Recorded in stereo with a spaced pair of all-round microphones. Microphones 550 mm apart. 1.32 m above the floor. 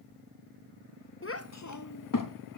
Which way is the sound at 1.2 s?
25° left (ahead or behind).